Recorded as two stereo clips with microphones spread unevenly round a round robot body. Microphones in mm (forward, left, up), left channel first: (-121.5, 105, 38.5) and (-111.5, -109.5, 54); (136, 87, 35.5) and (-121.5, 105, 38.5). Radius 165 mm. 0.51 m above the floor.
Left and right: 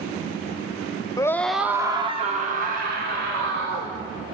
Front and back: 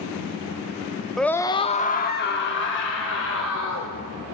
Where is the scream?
80° left, 0.7 m; by 3.9 s 40° right, 2.0 m.